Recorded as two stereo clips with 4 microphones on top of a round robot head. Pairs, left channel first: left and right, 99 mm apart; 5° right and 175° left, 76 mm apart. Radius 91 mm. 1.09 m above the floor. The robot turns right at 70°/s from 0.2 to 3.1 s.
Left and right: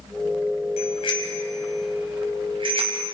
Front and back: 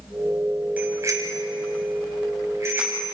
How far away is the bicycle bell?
About 5 m.